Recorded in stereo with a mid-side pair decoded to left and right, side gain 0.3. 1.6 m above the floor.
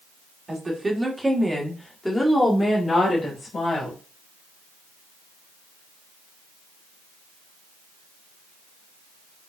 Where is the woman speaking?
40° right, 2 m; by 4.0 s 55° left, 3 m.